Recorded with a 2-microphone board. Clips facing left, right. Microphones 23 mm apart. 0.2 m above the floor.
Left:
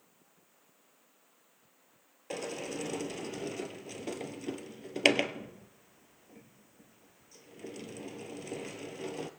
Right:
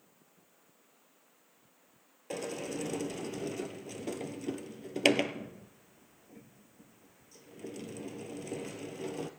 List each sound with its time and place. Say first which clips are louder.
2.3 s a sliding door: even; 15° left (ahead or behind), 1.1 m